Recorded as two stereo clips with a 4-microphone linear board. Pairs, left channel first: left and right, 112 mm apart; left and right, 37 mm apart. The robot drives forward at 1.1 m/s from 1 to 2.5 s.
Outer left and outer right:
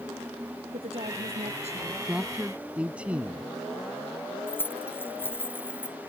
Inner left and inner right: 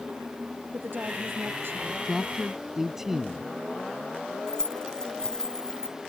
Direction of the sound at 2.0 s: 10° right (ahead or behind).